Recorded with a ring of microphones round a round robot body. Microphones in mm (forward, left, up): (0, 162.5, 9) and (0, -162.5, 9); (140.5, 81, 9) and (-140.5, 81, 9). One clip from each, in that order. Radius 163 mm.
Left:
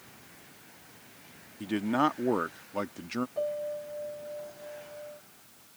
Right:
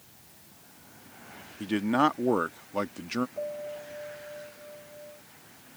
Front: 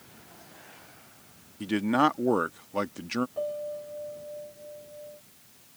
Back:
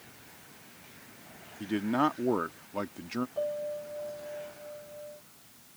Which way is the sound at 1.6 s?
15° right.